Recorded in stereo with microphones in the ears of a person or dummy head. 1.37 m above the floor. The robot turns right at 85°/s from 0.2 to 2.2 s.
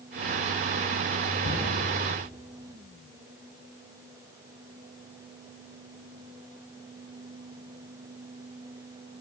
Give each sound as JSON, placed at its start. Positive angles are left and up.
{"t": 1.4, "sound": "a cupboard door", "side_deg": 65, "distance_m": 3.5}